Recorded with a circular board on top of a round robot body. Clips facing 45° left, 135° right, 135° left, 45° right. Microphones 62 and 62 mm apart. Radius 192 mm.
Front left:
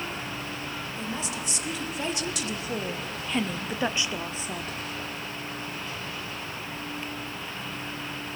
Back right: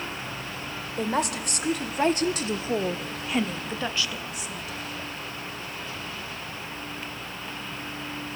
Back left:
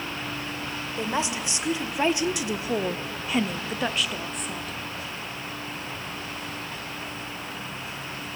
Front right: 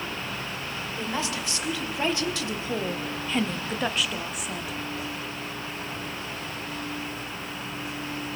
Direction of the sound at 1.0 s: 155° right.